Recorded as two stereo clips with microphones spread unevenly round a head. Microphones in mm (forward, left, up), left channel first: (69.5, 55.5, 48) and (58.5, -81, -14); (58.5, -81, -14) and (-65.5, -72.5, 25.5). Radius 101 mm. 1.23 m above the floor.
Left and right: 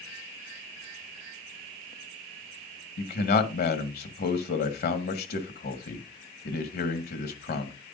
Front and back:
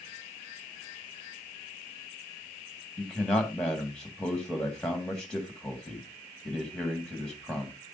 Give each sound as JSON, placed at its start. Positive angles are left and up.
{"t": 3.0, "sound": "a man speaking", "azimuth_deg": 80, "distance_m": 1.7}